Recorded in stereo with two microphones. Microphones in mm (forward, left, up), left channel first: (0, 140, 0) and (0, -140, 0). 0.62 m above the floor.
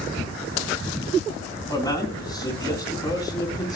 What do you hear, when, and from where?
1.7 s a man speaking: 15° left (ahead or behind), 3.5 m